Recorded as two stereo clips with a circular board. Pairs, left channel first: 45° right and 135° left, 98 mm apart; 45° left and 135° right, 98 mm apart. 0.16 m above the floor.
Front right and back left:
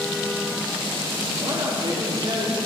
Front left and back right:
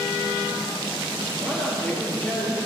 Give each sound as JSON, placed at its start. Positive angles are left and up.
{"t": 1.4, "sound": "a man speaking", "azimuth_deg": 120, "distance_m": 3.0}